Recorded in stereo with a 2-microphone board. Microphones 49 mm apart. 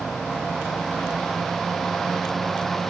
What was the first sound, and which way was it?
Only background noise.